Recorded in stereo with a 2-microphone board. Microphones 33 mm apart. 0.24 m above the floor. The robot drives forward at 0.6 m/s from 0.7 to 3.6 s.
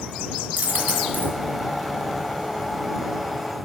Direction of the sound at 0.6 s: 70° right (ahead or behind).